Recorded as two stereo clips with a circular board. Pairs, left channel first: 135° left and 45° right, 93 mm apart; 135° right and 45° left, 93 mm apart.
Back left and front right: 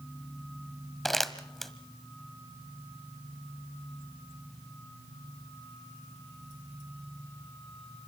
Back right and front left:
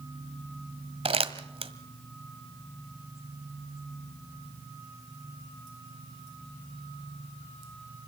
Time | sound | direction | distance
1.1 | crumpling | 45° left | 1.3 m